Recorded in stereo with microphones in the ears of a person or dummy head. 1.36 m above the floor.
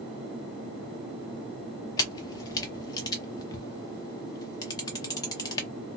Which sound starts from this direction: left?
A camera shutter, at 2.0 s.